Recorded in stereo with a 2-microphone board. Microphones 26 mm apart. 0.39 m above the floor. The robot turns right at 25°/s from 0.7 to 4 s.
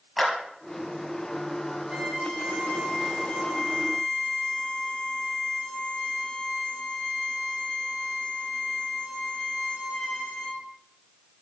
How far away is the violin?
About 5.5 m.